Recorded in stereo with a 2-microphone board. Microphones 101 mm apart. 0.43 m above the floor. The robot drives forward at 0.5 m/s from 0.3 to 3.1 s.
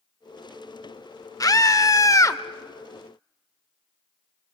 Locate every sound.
1.4 s a scream: 40° left (ahead or behind), 0.9 m; by 2.4 s 30° left (ahead or behind), 1.1 m